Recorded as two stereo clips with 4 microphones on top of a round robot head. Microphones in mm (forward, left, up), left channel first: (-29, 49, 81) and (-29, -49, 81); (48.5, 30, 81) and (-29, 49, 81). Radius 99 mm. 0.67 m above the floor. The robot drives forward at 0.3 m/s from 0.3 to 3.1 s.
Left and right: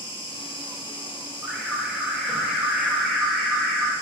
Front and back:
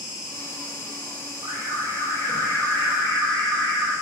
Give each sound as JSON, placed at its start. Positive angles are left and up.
{"t": 0.0, "sound": "an insect", "azimuth_deg": 95, "distance_m": 1.9}
{"t": 1.4, "sound": "an alarm", "azimuth_deg": -170, "distance_m": 1.0}